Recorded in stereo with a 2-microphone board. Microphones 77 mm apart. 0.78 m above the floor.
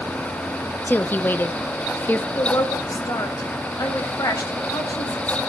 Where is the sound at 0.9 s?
25° left (ahead or behind), 0.7 m.